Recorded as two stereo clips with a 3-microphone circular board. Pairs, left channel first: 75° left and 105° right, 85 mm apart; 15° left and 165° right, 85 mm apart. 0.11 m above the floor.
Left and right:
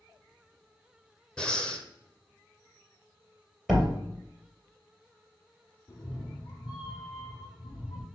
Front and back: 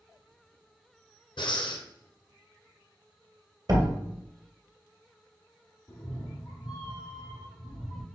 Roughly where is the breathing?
Ahead.